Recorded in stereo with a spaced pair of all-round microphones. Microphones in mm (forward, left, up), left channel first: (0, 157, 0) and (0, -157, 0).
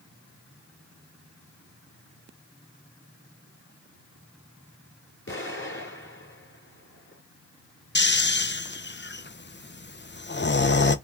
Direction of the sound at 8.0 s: 35° left (ahead or behind).